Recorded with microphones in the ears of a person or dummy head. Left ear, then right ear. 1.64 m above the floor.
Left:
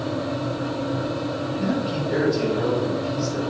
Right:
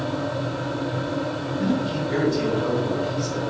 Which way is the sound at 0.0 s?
30° right (ahead or behind).